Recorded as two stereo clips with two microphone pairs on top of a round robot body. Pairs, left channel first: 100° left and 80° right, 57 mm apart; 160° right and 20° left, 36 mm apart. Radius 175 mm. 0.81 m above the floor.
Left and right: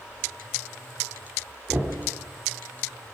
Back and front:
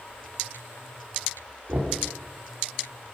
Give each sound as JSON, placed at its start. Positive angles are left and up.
{"t": 1.7, "sound": "knocking", "azimuth_deg": -15, "distance_m": 2.0}